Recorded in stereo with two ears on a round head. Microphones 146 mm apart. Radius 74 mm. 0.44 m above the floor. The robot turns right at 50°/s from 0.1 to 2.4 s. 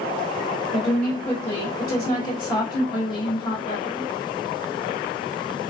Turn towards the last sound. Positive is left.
turn(degrees=30)  # may be behind; listen again after turning